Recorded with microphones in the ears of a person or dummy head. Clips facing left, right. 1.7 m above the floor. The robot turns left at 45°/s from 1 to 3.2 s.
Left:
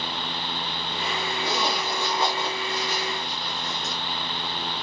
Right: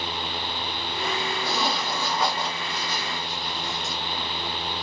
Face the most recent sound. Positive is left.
turn(degrees=55)  # may be behind; listen again after turning